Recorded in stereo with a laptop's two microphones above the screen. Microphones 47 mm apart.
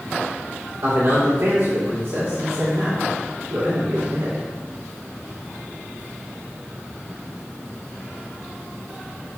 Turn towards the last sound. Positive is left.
turn(degrees=-75)  # may be behind; listen again after turning